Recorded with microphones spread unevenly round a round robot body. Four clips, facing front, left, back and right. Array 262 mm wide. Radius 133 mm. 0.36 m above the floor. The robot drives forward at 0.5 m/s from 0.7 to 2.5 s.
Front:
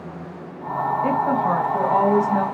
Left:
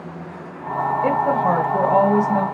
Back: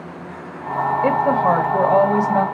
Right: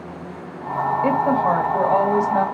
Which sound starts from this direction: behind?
A woman speaking, at 1.0 s.